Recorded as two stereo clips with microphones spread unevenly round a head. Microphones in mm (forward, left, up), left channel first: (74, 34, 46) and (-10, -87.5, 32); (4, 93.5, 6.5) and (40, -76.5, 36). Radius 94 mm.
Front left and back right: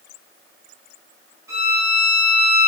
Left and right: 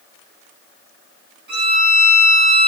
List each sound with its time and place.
1.5 s a violin: 55° right, 5 m